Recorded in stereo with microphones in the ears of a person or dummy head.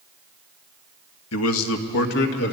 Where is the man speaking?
80° left, 1.3 m; by 2.5 s 60° left (ahead or behind), 1.9 m.